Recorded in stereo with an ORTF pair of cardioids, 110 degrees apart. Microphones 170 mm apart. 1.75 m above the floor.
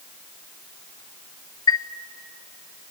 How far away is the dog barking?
I don't hear a dog barking.